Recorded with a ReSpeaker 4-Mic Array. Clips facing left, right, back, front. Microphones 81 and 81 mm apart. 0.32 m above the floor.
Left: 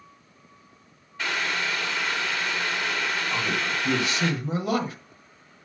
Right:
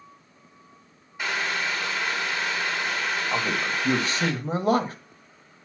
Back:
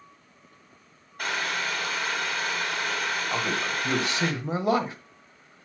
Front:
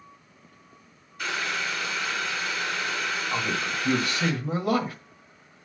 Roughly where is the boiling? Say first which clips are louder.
Even, back 1 dB; behind.